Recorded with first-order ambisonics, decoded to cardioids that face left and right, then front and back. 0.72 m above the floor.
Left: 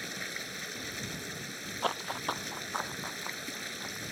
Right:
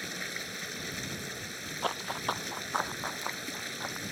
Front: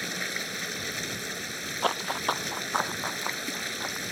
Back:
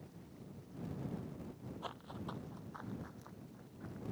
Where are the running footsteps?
10° left; by 4.0 s 25° right.